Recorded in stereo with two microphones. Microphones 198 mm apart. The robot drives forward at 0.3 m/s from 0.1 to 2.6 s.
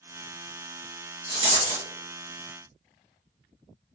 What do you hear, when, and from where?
1.3 s a rattle: 30° right (ahead or behind), 1.1 m; by 1.9 s 35° right (ahead or behind), 1.0 m